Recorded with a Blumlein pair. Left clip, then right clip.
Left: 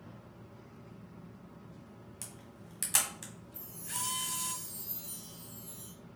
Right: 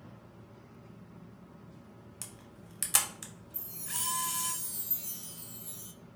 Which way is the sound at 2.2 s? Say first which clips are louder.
Right 2 dB; 10° right.